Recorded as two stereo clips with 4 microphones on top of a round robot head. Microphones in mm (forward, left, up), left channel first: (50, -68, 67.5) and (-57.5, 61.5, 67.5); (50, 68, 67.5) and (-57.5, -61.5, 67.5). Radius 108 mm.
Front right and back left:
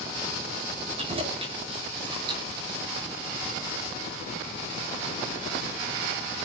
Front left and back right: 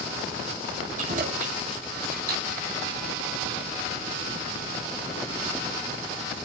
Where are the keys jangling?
175° right, 7 m; by 2.7 s 165° right, 7 m.